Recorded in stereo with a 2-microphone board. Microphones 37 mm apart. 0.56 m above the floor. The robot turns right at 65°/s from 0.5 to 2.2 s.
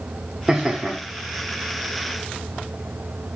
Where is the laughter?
40° right, 1.4 m; by 1.0 s 10° right, 1.4 m.